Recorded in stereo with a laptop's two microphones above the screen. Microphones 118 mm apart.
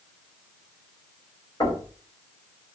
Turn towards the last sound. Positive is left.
turn(degrees=35)  # may be behind; listen again after turning